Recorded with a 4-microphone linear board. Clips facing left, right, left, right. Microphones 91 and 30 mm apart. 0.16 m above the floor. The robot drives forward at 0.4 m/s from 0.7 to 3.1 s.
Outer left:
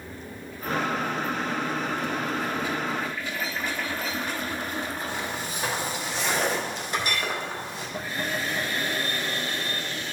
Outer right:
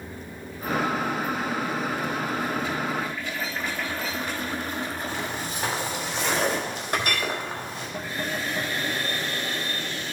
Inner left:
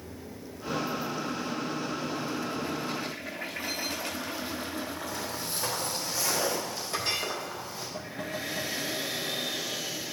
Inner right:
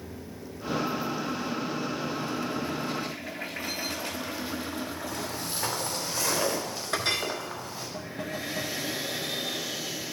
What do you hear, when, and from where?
5.1 s footsteps: 45° right (ahead or behind), 4 m; by 7.9 s 50° right (ahead or behind), 6 m
6.9 s a clink: 55° right (ahead or behind), 1.7 m